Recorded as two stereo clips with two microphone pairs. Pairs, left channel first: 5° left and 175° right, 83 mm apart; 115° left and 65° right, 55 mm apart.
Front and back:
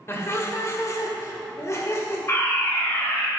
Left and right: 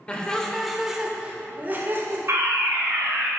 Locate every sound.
0.1 s laughter: 50° left, 1.3 m; by 2.2 s 45° right, 1.4 m
2.3 s a fire alarm: 50° right, 3 m